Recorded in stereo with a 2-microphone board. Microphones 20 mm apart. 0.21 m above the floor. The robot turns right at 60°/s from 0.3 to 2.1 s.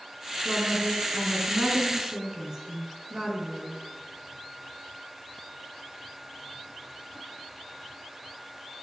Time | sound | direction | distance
0.5 | a woman speaking | 140° right | 2.5 m